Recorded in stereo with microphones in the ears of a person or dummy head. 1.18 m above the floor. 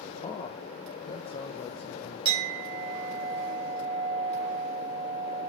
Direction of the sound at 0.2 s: 25° left (ahead or behind).